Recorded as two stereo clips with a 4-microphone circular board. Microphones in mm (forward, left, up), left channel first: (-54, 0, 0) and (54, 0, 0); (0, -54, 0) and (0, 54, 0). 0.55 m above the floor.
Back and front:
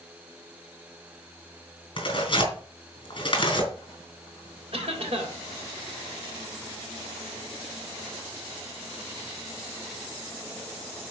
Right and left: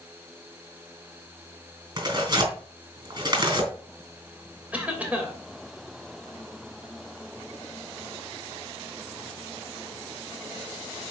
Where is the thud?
I don't hear a thud.